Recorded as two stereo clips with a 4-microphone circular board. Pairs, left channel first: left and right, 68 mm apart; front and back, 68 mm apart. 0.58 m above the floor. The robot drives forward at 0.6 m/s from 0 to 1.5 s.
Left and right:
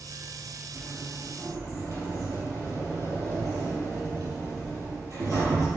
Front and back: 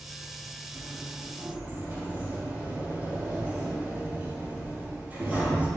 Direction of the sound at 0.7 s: 120° right.